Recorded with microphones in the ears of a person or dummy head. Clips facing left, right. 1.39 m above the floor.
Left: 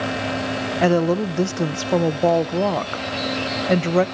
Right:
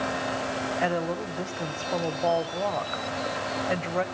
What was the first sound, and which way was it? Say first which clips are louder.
A woman speaking: left 12 dB; 50° left (ahead or behind).